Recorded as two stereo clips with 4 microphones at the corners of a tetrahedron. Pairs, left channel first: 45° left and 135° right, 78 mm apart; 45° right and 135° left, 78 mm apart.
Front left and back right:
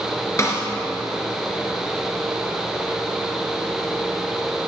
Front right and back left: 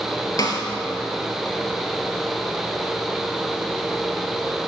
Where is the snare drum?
10° right, 2 m.